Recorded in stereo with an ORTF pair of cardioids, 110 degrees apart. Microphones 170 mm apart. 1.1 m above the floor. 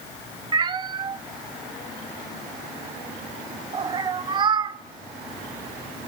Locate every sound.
0.5 s a cat meowing: 30° right, 0.8 m